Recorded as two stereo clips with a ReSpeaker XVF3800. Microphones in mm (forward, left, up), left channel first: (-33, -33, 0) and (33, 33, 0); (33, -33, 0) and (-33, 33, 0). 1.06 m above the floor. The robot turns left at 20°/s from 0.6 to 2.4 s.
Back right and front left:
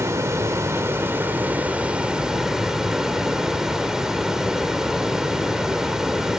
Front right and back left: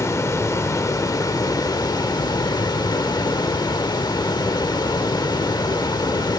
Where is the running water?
Straight ahead, 0.9 m; by 6.4 s 35° right, 0.9 m.